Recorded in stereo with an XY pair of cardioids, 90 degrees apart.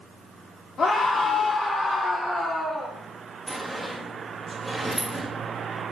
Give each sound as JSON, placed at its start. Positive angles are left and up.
{"t": 0.8, "sound": "a scream", "azimuth_deg": 50, "distance_m": 1.7}
{"t": 3.5, "sound": "a sliding door", "azimuth_deg": -10, "distance_m": 1.6}